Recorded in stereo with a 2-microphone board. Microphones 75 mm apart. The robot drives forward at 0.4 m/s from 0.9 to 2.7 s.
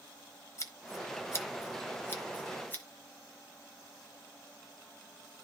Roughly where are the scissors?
Left.